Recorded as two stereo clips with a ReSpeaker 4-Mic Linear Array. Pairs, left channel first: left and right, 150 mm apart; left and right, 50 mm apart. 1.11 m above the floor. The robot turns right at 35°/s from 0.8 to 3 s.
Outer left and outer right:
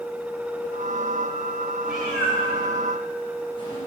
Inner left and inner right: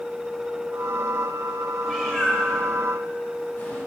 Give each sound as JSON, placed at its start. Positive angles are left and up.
{"t": 1.8, "sound": "a cat meowing", "side_deg": -5, "distance_m": 4.0}